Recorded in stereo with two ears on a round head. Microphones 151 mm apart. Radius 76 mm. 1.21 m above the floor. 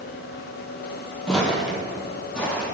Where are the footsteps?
5° left (ahead or behind), 1.3 m.